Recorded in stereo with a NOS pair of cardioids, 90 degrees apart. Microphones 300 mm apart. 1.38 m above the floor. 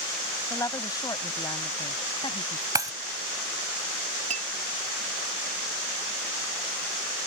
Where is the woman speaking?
10° left; by 2.6 s 15° left.